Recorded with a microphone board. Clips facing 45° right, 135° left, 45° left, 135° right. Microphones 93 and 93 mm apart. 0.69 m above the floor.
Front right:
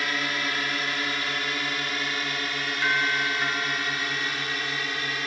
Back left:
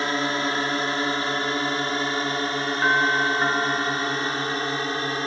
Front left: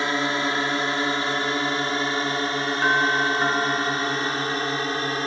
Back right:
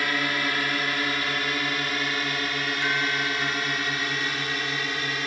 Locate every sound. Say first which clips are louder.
0.0 s a drone: back left 5 dB, front left 3 dB; 95° left; by 5.3 s 90° left
2.8 s a doorbell: back left 5 dB, front left 8 dB; 85° left